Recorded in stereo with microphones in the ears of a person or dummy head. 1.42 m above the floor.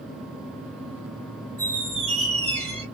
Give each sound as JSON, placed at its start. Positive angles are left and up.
{"t": 1.6, "sound": "a squeak", "side_deg": 5, "distance_m": 1.9}